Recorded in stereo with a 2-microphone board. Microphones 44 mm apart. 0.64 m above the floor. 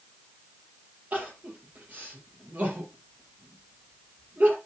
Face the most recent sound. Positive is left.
turn(degrees=-40)  # may be behind; listen again after turning